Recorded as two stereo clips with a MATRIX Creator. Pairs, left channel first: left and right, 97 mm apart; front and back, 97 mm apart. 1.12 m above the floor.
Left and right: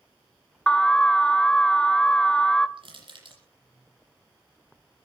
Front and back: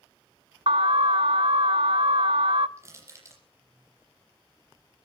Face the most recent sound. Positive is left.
turn(degrees=-120)